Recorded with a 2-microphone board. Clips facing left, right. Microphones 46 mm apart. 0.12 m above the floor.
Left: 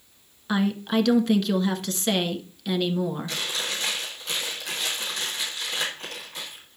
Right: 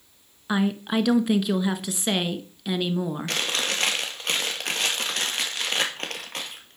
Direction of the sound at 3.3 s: 65° right (ahead or behind).